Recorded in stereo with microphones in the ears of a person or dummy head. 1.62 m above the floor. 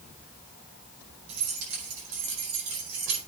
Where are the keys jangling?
80° right, 7.5 m; by 3.2 s 85° right, 9 m.